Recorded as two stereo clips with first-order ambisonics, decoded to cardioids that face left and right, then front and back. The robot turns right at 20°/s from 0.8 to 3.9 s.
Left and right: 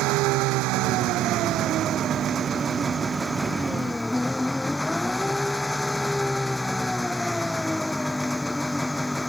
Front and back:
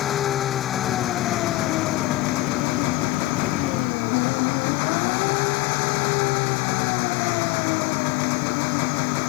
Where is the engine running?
60° right; by 9.3 s 5° left.